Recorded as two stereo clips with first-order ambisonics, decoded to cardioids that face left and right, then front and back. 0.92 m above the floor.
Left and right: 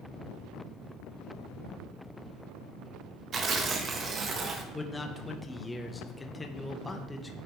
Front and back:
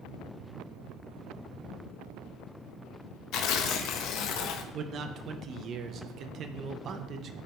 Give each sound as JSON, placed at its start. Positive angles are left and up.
{"t": 3.3, "sound": "tearing paper", "azimuth_deg": -30, "distance_m": 0.7}
{"t": 4.7, "sound": "a man speaking", "azimuth_deg": 170, "distance_m": 0.6}